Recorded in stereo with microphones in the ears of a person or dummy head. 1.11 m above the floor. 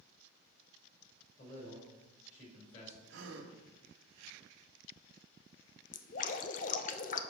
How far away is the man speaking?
About 4 m.